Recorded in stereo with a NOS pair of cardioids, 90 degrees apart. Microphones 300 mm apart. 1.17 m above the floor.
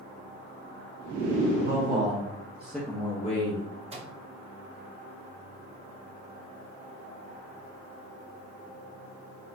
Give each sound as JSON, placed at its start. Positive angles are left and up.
{"t": 1.6, "sound": "a man speaking", "azimuth_deg": -40, "distance_m": 1.1}
{"t": 3.9, "sound": "a microwave", "azimuth_deg": -20, "distance_m": 0.7}